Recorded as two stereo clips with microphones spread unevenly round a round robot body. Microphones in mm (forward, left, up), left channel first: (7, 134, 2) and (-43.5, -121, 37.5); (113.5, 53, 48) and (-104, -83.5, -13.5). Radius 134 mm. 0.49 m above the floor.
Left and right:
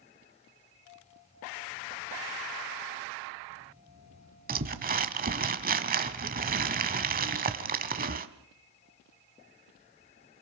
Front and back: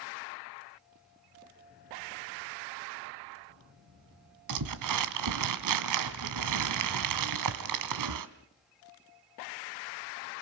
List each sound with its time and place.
4.5 s crumpling: 160° right, 1.5 m